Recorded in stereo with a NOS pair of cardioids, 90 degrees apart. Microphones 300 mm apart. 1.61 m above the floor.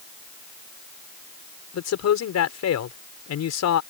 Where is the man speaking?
60° left.